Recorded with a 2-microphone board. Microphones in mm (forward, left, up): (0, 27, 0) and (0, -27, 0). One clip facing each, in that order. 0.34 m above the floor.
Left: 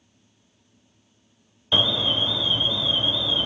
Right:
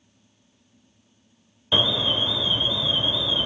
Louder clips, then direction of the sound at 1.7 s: Even; 15° right (ahead or behind).